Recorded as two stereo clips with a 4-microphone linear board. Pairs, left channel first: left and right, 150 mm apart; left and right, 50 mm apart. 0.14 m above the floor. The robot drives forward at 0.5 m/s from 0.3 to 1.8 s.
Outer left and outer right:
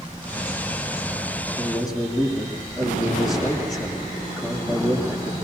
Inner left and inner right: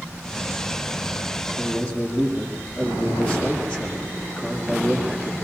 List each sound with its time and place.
1.6 s a man speaking: 25° left (ahead or behind), 8 m